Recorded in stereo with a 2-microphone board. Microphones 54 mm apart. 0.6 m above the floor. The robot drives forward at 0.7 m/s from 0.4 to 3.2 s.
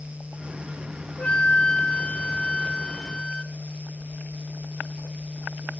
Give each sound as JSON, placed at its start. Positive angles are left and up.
{"t": 1.2, "sound": "a flute", "side_deg": 20}